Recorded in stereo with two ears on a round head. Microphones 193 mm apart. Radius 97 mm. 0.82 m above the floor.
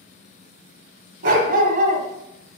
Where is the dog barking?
45° right (ahead or behind), 1.6 m.